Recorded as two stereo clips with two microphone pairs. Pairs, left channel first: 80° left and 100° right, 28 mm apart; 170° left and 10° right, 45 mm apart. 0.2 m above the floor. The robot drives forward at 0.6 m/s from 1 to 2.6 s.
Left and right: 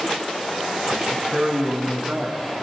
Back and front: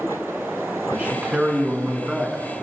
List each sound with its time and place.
0.9 s a man speaking: 70° right, 1.9 m; by 2.6 s 105° right, 1.8 m